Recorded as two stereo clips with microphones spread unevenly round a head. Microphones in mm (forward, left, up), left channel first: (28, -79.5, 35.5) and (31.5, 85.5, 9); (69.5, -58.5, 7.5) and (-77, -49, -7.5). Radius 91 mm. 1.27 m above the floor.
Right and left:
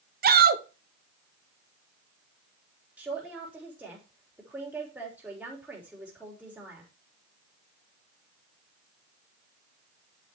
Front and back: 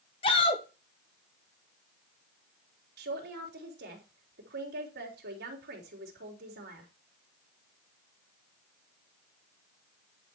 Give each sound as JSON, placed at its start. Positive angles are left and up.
{"t": 0.2, "sound": "a shout", "azimuth_deg": 60, "distance_m": 1.6}
{"t": 3.0, "sound": "a man speaking", "azimuth_deg": 170, "distance_m": 3.5}